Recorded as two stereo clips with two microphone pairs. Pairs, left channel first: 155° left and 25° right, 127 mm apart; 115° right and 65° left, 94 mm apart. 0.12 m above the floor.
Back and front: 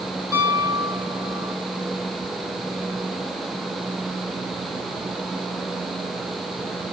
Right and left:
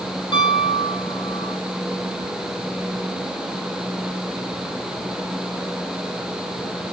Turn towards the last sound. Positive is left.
turn(degrees=-85)